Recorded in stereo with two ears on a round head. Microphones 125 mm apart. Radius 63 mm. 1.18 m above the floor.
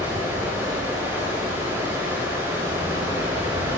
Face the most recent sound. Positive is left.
turn(degrees=-15)  # may be behind; listen again after turning